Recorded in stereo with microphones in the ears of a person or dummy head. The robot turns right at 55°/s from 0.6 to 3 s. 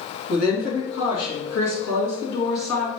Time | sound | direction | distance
0.3 | a woman speaking | 50° left | 2.5 m